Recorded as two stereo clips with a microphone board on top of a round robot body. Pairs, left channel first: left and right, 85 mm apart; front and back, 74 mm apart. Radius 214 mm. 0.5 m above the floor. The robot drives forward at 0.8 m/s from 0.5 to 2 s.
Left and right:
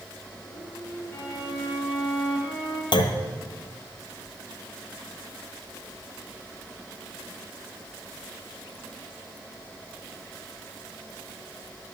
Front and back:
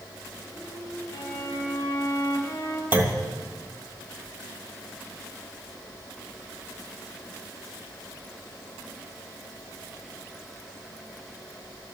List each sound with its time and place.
1.1 s a violin: 50° left, 2.5 m; by 2.8 s 65° left, 2.5 m
2.9 s a clunk: 115° left, 1.0 m